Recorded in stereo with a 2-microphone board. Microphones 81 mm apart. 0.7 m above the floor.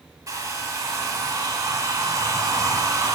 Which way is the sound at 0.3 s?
45° right (ahead or behind).